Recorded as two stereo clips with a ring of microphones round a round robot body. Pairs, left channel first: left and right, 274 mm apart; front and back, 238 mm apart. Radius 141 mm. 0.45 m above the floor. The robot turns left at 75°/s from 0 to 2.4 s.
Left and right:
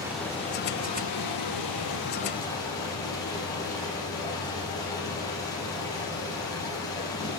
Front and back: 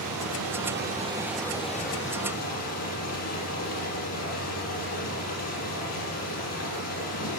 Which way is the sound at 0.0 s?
170° right.